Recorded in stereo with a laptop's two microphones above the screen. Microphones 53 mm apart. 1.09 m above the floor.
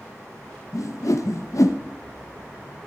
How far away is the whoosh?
About 0.6 m.